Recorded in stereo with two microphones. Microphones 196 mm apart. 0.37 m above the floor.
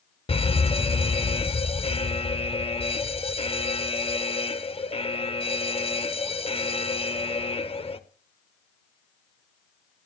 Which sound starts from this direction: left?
An alarm, at 0.3 s.